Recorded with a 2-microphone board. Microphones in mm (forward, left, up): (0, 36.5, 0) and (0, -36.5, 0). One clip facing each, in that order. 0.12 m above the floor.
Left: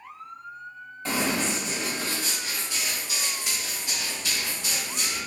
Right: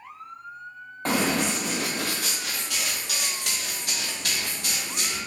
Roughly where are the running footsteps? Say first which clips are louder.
Right 3 dB; right.